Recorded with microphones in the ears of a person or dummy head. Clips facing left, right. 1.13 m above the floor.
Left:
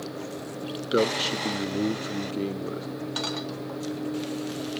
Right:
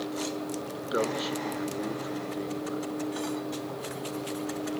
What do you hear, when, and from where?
0.9 s a man speaking: 30° left (ahead or behind), 0.6 m